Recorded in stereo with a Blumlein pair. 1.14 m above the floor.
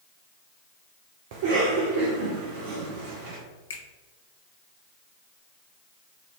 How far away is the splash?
I don't hear a splash.